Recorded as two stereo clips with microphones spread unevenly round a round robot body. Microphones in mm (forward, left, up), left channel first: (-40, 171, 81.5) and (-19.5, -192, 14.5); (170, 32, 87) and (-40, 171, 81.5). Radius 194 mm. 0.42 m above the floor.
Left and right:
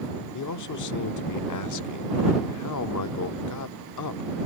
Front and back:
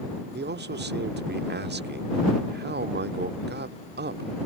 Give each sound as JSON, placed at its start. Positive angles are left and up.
{"t": 0.3, "sound": "a man speaking", "azimuth_deg": 125}